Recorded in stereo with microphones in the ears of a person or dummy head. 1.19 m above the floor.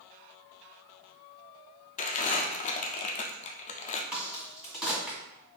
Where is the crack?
5° left (ahead or behind), 2.0 m.